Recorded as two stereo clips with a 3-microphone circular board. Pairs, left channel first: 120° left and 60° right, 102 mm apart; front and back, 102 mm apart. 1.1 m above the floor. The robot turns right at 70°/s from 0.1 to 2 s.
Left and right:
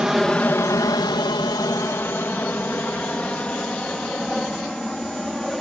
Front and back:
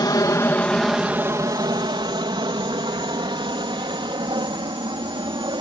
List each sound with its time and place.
0.0 s an aircraft: 25° left; by 5.6 s 150° right